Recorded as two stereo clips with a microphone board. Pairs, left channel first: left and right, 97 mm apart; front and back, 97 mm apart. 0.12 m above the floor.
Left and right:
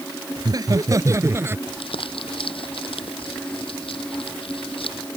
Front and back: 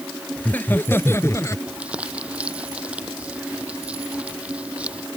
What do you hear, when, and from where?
0.4 s laughter: 70° right; by 1.6 s 35° right
1.7 s crumpling: 105° left